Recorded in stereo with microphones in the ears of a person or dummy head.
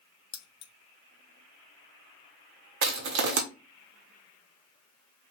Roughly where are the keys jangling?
Left.